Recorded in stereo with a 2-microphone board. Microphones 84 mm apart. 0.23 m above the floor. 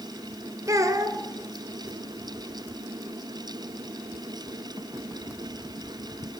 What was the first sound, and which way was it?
A child speaking, 40° right (ahead or behind).